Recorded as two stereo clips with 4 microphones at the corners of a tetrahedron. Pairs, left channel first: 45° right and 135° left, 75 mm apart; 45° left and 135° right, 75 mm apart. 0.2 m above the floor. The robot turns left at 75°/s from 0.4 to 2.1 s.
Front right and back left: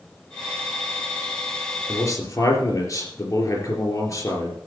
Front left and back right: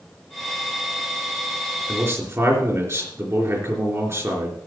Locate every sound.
1.9 s a man speaking: 70° right, 3.5 m; by 4.6 s 85° right, 3.5 m